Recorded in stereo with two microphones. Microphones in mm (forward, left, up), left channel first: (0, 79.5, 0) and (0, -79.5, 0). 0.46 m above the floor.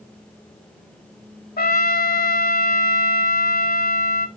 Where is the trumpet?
75° left (ahead or behind), 0.5 m.